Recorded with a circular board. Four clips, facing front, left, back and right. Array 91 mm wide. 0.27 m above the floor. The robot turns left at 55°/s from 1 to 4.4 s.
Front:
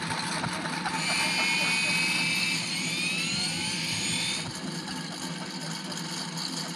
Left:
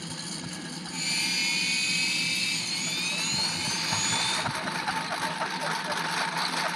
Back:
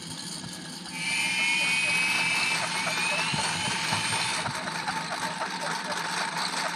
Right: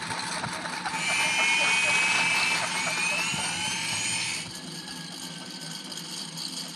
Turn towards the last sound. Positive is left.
turn(degrees=130)